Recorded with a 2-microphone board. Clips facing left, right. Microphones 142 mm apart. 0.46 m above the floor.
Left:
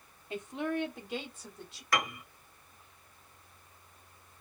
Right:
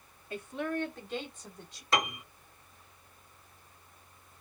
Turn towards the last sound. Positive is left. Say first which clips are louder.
# right 2 dB
turn(degrees=-25)  # may be behind; listen again after turning